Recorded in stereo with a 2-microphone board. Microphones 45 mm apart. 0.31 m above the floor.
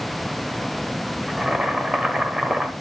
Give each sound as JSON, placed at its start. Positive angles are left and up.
{"t": 1.3, "sound": "boiling", "side_deg": -15, "distance_m": 1.0}